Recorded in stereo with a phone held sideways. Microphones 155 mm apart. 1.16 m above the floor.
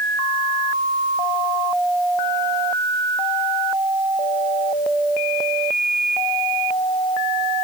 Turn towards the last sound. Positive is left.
No sound to turn to.